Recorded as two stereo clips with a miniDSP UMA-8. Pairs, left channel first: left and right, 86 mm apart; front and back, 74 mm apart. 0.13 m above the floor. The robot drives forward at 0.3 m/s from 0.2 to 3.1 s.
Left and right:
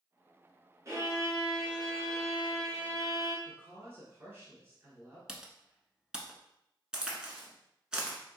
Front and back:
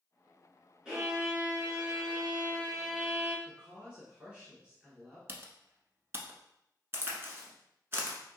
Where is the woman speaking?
125° right, 1.3 m.